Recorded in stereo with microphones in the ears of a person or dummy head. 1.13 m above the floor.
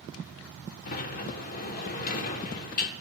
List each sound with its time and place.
0.9 s a sliding door: 45° left (ahead or behind), 1.7 m